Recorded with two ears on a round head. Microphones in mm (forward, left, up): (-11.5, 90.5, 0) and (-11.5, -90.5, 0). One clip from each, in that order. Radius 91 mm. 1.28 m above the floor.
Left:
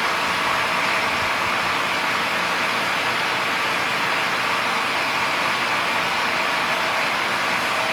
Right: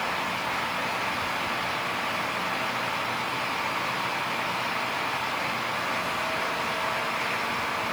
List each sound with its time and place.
Only background noise.